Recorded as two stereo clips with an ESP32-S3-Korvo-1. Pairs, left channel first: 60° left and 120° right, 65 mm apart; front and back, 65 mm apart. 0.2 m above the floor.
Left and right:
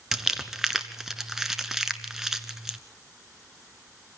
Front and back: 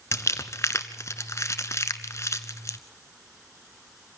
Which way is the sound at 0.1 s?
40° right.